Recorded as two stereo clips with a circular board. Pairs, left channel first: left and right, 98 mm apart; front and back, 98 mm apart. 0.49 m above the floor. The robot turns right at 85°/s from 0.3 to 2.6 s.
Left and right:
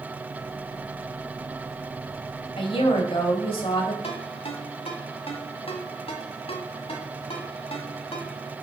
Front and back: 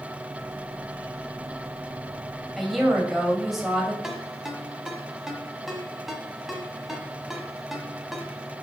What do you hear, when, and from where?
2.6 s a woman speaking: 85° left, 2.5 m; by 3.9 s 90° left, 2.5 m
4.0 s a ringtone: 90° left, 1.5 m